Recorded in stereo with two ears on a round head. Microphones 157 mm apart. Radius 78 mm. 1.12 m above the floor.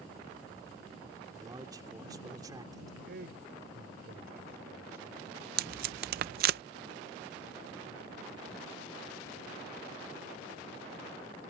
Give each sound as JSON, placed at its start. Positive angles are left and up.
{"t": 1.3, "sound": "a man speaking", "side_deg": -20}
{"t": 3.0, "sound": "a man speaking", "side_deg": -60}
{"t": 5.6, "sound": "tape being pulled", "side_deg": -55}